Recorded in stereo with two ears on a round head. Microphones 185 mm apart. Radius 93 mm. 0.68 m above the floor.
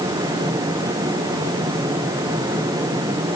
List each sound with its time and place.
Only background noise.